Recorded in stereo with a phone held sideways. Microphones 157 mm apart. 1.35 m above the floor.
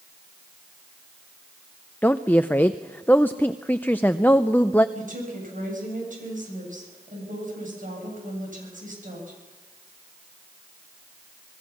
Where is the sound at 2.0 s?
10° left (ahead or behind), 0.5 m.